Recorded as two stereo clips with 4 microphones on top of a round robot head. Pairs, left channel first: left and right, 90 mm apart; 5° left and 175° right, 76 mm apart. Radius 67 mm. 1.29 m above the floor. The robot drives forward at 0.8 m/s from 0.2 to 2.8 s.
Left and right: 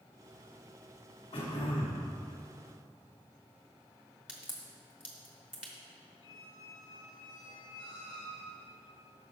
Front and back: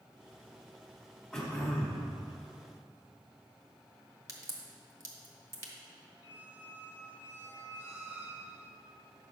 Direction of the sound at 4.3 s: 170° right.